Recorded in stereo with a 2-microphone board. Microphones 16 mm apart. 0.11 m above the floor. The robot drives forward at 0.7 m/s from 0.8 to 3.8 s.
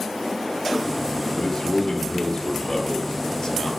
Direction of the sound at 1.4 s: 45° left (ahead or behind).